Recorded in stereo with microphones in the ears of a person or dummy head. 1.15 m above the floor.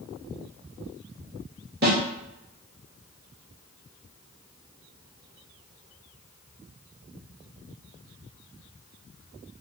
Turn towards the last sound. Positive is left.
turn(degrees=-55)  # may be behind; listen again after turning